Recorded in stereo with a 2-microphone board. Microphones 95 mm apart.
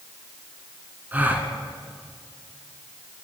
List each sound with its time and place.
1.1 s a gasp: 20° right (ahead or behind), 1.1 m